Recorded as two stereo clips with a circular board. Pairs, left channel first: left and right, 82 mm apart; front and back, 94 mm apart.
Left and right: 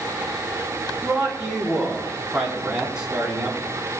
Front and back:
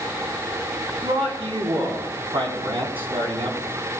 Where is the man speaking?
175° right, 4 m.